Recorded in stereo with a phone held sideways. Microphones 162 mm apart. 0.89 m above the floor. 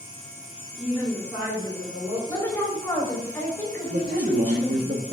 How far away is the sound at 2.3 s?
About 3.5 m.